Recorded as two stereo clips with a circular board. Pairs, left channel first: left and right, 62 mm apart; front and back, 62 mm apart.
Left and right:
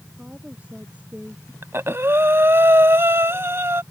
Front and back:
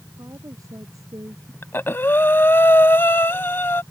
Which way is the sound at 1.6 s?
50° right.